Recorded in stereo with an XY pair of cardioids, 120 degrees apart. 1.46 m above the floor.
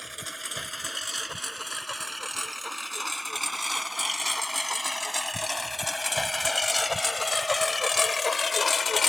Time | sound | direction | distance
0.0 | a lawn mower | straight ahead | ?